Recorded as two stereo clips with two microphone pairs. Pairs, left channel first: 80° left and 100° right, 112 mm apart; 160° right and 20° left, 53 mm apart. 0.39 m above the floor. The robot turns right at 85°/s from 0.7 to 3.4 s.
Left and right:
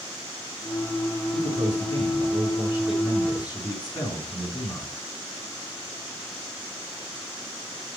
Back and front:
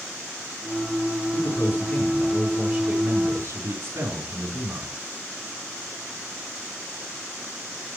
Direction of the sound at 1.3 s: 150° right.